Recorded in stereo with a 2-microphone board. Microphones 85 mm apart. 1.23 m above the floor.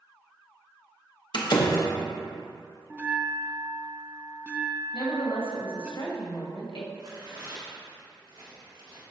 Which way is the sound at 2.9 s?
20° right (ahead or behind).